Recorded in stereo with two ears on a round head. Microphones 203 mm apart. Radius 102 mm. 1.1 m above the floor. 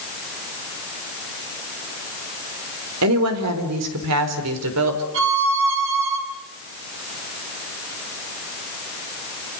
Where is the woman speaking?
70° right (ahead or behind), 4 m; by 5.0 s 80° right, 4.5 m.